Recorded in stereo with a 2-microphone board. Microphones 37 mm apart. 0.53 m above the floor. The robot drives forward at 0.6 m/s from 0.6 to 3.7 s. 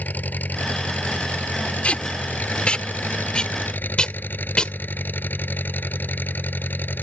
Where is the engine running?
55° left (ahead or behind); by 7.0 s 65° left (ahead or behind).